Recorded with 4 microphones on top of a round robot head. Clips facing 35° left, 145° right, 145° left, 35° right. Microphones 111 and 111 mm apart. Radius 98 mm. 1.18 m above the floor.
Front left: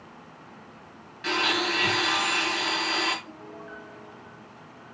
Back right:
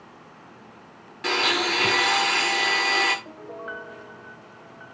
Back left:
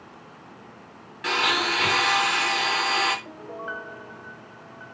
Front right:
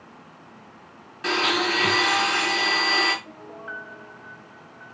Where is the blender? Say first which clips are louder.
Back right 2 dB, front right 1 dB; 95° right, 5.5 m.